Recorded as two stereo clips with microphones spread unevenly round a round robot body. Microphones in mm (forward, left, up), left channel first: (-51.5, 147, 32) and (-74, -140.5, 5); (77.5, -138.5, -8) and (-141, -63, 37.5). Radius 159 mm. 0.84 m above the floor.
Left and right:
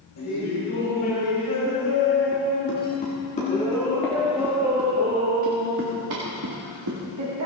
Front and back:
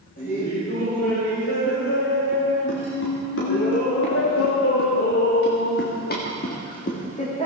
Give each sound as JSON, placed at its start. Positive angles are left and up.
{"t": 0.2, "sound": "laughter", "azimuth_deg": 45, "distance_m": 4.0}